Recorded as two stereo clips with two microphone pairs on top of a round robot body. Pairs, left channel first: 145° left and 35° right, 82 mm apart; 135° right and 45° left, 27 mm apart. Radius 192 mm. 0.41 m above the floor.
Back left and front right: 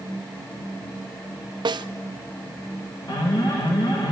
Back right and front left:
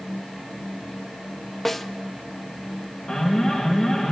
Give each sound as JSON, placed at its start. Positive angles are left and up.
{"t": 1.6, "sound": "a snare drum", "azimuth_deg": -55, "distance_m": 0.7}
{"t": 3.1, "sound": "an alarm", "azimuth_deg": 150, "distance_m": 4.0}